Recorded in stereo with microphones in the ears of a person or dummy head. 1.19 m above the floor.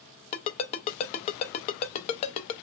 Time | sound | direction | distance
0.3 | a ringtone | 40° left (ahead or behind) | 0.5 m